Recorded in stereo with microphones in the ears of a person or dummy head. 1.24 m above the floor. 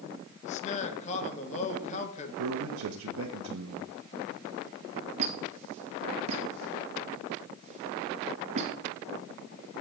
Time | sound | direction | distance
0.4 | a man speaking | 40° left (ahead or behind) | 1.4 m
2.4 | a man speaking | 85° right | 1.0 m
5.2 | a squeak | 40° right (ahead or behind) | 1.0 m